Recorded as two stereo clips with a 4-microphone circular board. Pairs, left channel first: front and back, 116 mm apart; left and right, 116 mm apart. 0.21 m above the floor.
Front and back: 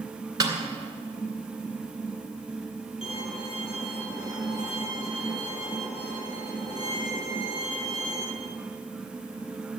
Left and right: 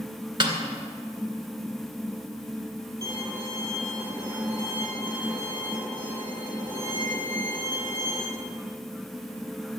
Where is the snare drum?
130° right, 2 m.